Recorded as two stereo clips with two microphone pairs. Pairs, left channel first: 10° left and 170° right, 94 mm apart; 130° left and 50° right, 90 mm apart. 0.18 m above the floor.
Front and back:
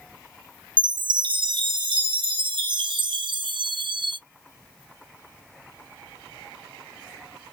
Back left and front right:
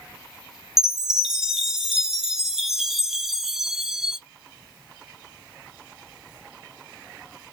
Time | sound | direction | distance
0.8 | a chime | 140° right | 0.7 m